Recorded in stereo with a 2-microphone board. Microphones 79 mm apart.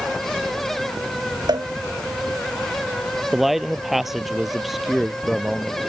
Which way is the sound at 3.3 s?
5° right (ahead or behind).